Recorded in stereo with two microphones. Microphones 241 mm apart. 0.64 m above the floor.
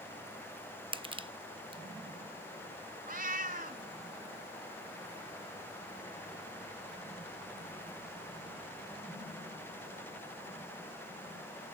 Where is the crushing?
20° right (ahead or behind), 0.7 m.